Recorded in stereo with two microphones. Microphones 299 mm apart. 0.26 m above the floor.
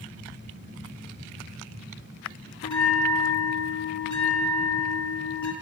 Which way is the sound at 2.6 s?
70° left (ahead or behind).